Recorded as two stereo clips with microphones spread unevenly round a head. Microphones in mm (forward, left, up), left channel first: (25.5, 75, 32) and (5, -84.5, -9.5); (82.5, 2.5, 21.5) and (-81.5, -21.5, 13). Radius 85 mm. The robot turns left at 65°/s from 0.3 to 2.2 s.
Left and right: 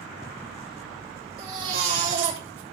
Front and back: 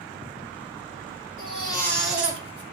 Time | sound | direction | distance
1.4 | a baby crying | 35° right | 6.5 m